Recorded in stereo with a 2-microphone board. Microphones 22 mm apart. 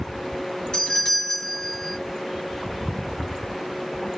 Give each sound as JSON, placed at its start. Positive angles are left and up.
{"t": 0.7, "sound": "a doorbell", "side_deg": 35, "distance_m": 1.7}